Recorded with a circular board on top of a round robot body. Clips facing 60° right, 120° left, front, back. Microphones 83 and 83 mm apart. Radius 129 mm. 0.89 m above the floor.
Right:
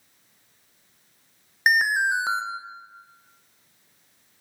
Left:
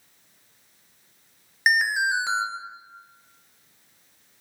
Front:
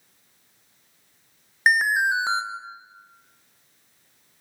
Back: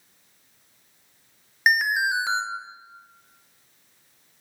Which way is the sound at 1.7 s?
40° right.